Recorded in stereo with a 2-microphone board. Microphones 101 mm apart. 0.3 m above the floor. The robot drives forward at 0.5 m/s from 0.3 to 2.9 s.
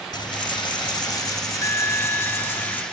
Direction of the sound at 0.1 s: 45° left (ahead or behind).